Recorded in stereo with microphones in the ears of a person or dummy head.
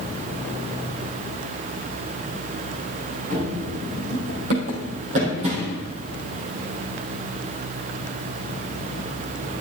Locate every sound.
3.3 s running footsteps: 60° right (ahead or behind), 4.5 m; by 5.8 s 40° right (ahead or behind), 4 m